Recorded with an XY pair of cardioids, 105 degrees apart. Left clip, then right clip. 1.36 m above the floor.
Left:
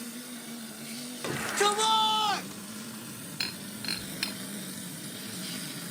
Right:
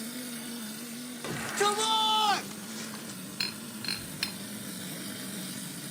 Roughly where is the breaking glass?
Ahead.